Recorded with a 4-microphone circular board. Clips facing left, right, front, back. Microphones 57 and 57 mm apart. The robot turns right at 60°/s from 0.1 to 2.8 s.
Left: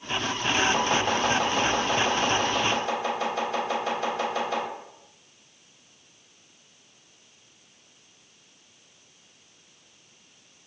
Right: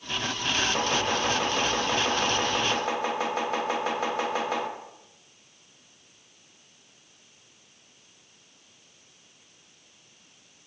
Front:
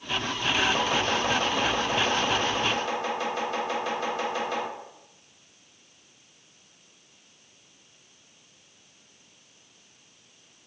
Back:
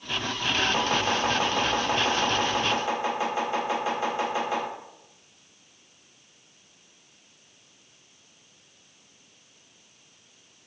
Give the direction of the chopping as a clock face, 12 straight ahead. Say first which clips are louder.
Left 2 dB, even; 8 o'clock.